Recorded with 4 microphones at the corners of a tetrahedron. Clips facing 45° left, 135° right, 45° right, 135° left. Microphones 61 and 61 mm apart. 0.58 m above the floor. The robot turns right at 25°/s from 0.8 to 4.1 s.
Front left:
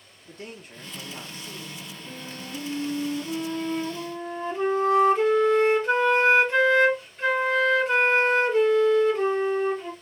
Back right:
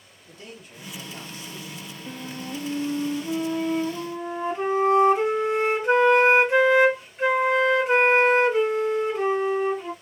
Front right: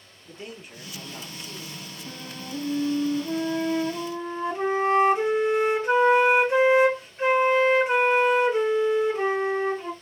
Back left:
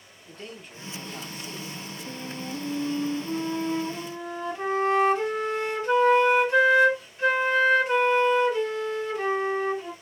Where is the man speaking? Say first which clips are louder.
Front left 2 dB, front right 1 dB; 35° left, 1.0 m; by 1.9 s 60° left, 1.0 m.